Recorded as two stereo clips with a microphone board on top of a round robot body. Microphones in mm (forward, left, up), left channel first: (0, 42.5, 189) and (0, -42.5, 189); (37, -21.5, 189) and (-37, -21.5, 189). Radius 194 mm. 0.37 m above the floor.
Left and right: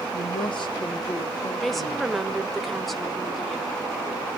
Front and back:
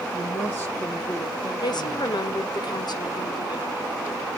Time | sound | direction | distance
0.1 | a woman speaking | 55° left | 7 m
1.6 | a woman speaking | straight ahead | 1.8 m